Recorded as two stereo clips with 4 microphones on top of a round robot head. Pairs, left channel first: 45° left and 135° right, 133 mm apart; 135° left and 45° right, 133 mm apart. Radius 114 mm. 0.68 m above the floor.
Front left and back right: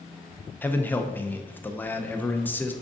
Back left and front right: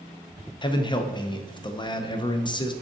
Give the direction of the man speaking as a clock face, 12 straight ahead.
8 o'clock.